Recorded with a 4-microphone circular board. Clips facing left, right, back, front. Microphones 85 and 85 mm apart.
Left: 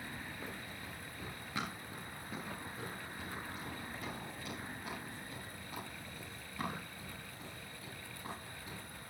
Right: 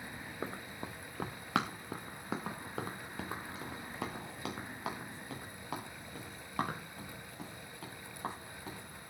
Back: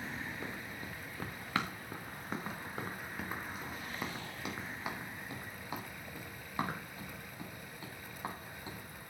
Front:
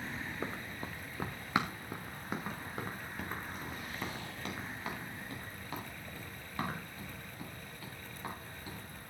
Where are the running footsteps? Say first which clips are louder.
Right 4 dB, front 3 dB; 50° right, 1.8 m; by 8.8 s 115° right, 7.5 m.